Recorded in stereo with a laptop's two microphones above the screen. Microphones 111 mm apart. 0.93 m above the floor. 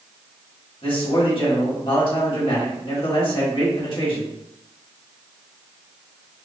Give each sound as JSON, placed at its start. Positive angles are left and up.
{"t": 0.8, "sound": "a man speaking", "side_deg": 55, "distance_m": 1.3}